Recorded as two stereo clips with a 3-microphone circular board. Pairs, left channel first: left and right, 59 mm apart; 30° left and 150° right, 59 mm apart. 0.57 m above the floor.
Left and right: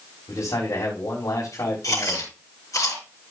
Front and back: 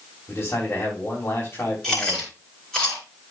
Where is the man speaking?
90° left, 4 m.